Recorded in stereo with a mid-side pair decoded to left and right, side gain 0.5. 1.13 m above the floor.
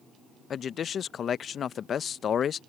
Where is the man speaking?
50° left.